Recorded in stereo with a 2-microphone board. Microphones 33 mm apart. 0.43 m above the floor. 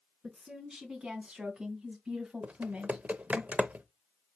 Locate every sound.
0.2 s a woman speaking: 25° right (ahead or behind), 3.5 m; by 3.4 s 45° right (ahead or behind), 1.7 m
2.4 s typing on a keyboard: 55° right (ahead or behind), 0.6 m